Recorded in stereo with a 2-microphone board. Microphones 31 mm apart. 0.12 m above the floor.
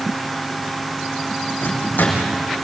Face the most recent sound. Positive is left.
turn(degrees=75)  # may be behind; listen again after turning